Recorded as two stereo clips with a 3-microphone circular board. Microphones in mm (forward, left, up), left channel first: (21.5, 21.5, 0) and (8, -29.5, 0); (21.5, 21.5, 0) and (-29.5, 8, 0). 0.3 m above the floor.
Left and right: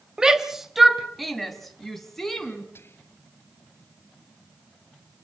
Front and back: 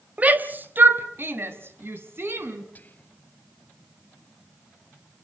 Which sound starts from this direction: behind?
A shout, at 0.2 s.